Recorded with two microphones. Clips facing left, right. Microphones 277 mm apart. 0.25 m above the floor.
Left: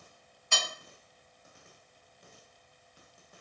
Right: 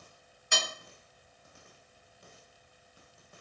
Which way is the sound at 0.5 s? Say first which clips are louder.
Right 2 dB; 15° right (ahead or behind).